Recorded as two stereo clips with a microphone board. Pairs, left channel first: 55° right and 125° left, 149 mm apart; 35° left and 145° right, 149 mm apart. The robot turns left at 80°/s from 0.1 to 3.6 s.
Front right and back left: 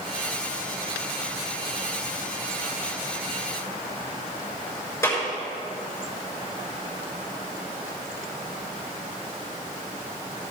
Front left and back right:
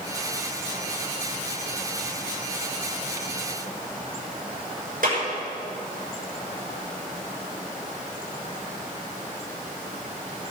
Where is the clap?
125° right, 6.5 m.